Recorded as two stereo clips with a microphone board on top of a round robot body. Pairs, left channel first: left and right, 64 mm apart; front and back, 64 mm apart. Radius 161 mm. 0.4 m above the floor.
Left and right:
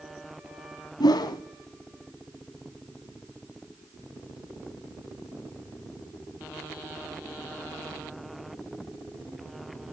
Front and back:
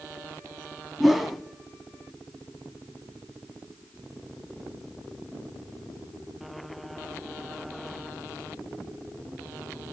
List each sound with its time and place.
1.0 s a whoosh: 90° left, 0.6 m